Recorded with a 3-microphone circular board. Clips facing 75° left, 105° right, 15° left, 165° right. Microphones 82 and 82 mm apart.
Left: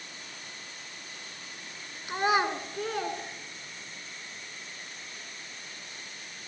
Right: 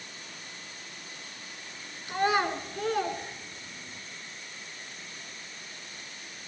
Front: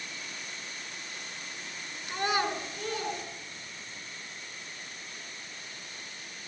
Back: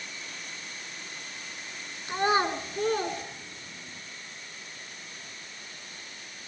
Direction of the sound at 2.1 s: 135° left.